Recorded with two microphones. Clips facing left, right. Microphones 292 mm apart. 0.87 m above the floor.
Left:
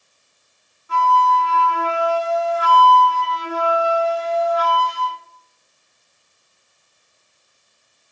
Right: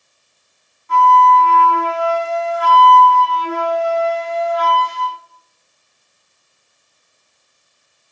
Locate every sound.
0.9 s a flute: 10° left (ahead or behind), 5 m